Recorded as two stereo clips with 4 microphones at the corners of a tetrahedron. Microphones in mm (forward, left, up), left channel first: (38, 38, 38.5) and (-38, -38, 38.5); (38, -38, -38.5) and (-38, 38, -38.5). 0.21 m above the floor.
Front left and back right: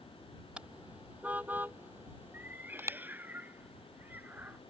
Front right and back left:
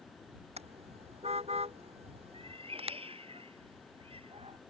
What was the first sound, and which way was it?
A car horn, 145° left.